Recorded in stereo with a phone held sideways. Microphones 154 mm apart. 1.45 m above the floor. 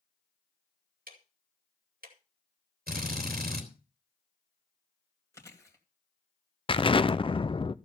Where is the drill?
75° right (ahead or behind), 2.5 m.